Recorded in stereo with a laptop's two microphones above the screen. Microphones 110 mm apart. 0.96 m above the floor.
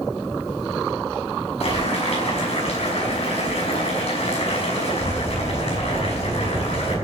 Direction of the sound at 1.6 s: 65° left (ahead or behind).